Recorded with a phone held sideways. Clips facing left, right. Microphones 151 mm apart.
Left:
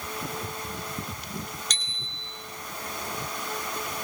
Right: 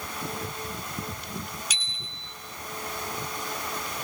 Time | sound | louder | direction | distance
1.7 | a bicycle bell | even | 10° right (ahead or behind) | 7 m